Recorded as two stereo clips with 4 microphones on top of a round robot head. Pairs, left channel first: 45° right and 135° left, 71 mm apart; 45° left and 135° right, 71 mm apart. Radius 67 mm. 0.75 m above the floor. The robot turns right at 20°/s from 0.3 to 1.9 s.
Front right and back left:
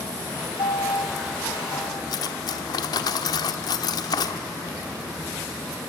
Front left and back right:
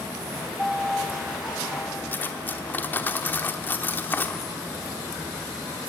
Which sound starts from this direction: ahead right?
A piano, at 0.6 s.